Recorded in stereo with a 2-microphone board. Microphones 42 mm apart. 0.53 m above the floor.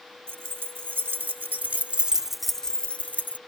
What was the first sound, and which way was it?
Keys jangling, 70° right (ahead or behind).